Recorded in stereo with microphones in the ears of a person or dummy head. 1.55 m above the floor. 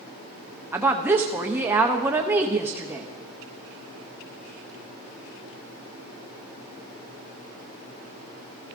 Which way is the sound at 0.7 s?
10° right (ahead or behind).